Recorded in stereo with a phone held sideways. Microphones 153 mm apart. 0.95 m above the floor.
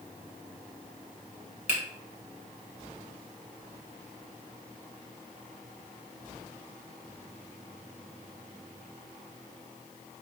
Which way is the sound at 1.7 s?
45° left (ahead or behind).